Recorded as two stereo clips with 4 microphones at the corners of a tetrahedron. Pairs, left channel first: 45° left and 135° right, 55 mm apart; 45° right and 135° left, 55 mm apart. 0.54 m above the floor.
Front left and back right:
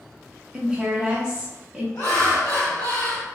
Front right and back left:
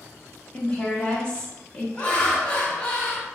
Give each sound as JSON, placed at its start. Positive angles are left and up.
{"t": 0.5, "sound": "a woman speaking", "azimuth_deg": -80, "distance_m": 0.8}
{"t": 1.9, "sound": "laughter", "azimuth_deg": 20, "distance_m": 1.5}